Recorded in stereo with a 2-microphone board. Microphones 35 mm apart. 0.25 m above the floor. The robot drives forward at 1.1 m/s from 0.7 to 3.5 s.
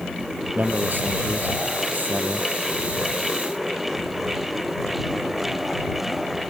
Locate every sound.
0.6 s a man speaking: 65° right (ahead or behind); by 2.5 s 55° right (ahead or behind)